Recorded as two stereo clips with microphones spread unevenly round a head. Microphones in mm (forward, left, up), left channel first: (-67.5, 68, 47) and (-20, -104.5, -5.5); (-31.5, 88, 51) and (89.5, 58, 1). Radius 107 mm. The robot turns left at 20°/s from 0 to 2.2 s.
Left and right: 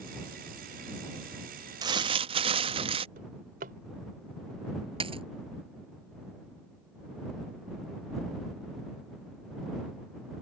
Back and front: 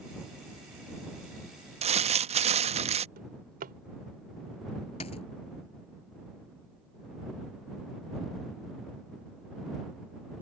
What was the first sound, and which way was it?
Crumpling, 10° right.